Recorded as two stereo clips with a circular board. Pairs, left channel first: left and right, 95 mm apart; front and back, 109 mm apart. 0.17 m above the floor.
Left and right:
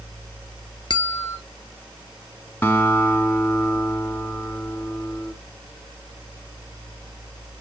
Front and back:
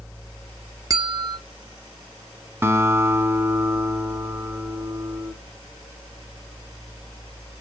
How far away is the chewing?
I don't hear chewing.